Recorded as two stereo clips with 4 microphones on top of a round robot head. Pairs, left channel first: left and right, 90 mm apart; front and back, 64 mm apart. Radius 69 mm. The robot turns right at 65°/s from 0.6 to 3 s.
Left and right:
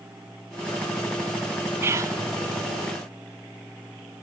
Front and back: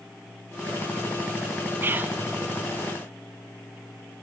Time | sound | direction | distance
1.8 | whispering | 140° right | 0.7 m